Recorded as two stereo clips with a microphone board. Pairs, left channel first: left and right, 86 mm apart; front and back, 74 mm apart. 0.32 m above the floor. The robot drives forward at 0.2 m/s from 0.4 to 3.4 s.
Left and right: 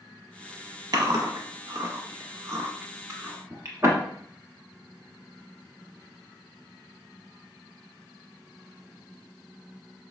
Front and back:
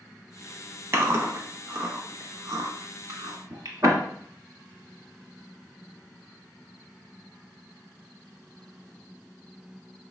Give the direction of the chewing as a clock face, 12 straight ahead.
4 o'clock.